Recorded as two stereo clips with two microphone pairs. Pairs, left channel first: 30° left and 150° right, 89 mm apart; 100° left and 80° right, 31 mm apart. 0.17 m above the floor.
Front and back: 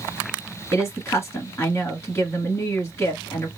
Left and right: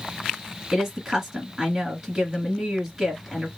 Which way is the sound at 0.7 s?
5° right.